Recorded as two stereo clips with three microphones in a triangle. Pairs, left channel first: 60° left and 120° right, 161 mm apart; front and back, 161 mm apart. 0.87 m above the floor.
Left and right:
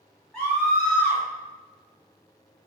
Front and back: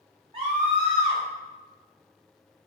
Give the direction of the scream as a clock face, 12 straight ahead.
7 o'clock.